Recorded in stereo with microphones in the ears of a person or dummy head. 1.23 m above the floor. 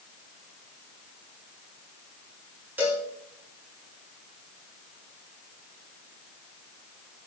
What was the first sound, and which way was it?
A cowbell, 10° right (ahead or behind).